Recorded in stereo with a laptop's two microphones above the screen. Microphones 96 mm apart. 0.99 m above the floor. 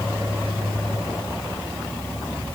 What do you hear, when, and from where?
Only background noise.